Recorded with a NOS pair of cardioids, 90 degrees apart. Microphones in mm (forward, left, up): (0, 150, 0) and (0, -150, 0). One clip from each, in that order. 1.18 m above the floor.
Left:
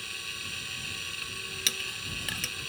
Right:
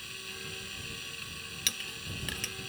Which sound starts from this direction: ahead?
A clink, at 1.7 s.